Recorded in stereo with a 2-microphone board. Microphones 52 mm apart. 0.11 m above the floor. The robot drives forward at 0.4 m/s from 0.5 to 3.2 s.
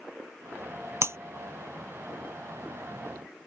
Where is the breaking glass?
55° right (ahead or behind).